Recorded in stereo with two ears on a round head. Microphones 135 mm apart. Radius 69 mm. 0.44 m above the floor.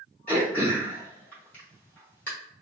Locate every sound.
0.3 s throat clearing: 10° left (ahead or behind), 1.7 m